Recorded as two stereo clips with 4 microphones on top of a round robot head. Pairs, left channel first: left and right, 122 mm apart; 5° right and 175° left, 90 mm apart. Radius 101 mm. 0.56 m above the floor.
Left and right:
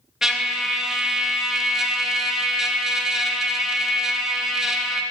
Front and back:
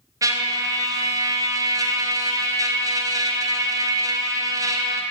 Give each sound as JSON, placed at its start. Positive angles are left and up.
{"t": 0.2, "sound": "a trumpet", "azimuth_deg": -175, "distance_m": 0.9}